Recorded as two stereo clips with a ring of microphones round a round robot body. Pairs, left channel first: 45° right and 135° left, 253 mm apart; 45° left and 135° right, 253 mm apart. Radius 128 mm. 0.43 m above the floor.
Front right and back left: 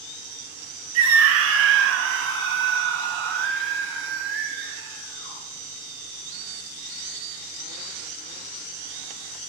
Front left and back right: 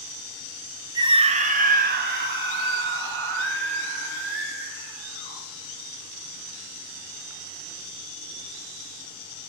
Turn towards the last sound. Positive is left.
turn(degrees=180)